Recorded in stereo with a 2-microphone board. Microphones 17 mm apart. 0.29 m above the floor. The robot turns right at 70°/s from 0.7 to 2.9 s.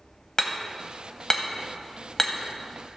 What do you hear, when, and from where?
0.4 s hammering: 30° left (ahead or behind), 1.0 m; by 3.0 s 10° right (ahead or behind), 1.0 m